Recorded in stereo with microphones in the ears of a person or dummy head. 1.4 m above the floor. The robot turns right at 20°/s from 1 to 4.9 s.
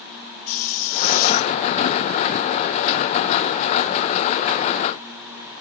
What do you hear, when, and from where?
0.5 s a hiss: 45° left (ahead or behind), 0.7 m; by 1.6 s 50° left (ahead or behind), 0.7 m